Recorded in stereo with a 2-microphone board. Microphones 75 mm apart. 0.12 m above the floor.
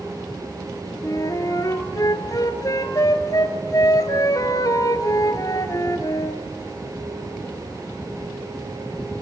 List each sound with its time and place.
1.0 s a flute: 50° left (ahead or behind), 1.4 m